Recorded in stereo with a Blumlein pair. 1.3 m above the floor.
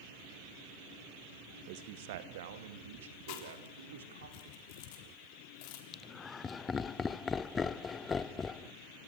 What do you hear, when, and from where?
1.7 s a man speaking: 45° right, 1.2 m; by 4.3 s 65° right, 3.5 m
3.3 s chewing: 45° left, 3.5 m
5.9 s laughter: 20° left, 0.7 m